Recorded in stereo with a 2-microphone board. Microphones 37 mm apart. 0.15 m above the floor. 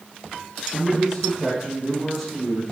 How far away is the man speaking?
About 3.5 m.